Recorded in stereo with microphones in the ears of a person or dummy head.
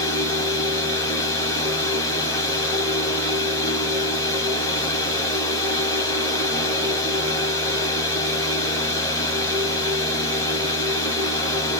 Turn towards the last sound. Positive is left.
turn(degrees=15)  # may be behind; listen again after turning